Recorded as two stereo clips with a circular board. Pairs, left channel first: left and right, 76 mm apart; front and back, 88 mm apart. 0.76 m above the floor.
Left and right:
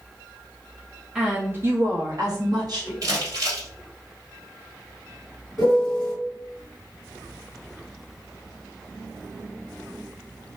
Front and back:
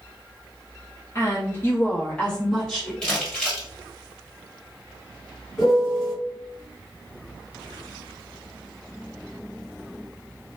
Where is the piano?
85° right, 1.3 m.